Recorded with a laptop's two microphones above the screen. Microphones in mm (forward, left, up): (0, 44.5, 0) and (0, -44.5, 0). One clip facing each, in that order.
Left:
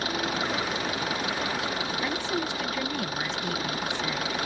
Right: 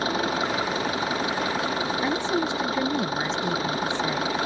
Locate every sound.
0.0 s an engine running: 30° right (ahead or behind)
2.0 s a woman speaking: 25° right (ahead or behind)